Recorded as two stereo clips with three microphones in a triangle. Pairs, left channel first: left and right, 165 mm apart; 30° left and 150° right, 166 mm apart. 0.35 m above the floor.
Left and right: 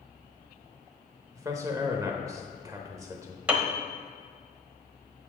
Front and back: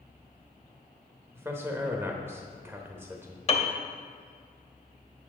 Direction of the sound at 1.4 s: 105° right.